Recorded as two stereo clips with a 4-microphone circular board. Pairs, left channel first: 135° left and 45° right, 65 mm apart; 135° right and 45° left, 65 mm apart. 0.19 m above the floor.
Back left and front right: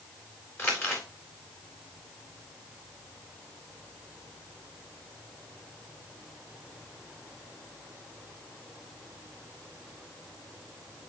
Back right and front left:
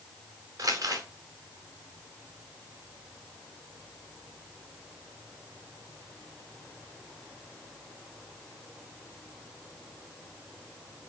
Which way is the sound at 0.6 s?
80° left.